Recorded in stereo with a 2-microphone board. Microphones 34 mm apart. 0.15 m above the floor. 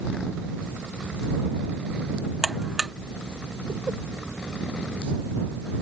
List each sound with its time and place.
2.4 s a buzzer: 15° right (ahead or behind)